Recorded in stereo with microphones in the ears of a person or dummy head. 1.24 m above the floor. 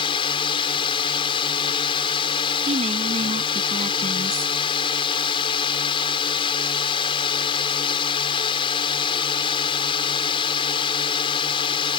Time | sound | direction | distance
0.0 | a drone | 30° left (ahead or behind) | ?
2.7 | a woman speaking | 40° right (ahead or behind) | ?